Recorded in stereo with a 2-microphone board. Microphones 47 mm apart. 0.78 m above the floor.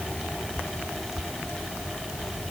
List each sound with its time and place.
Only background noise.